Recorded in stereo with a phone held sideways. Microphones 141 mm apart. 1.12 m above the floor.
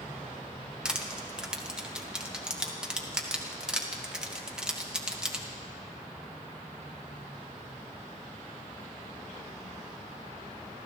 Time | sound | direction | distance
0.8 | crushing | 5° right (ahead or behind) | 1.3 m